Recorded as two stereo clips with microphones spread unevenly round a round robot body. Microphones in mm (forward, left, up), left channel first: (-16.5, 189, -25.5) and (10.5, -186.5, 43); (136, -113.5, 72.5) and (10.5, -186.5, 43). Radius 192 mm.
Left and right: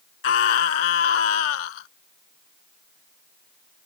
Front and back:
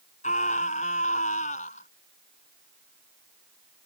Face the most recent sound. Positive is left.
turn(degrees=95)